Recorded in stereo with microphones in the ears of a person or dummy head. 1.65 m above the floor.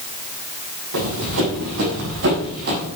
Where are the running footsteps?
75° right (ahead or behind), 7 m; by 2.9 s 55° right (ahead or behind), 7 m.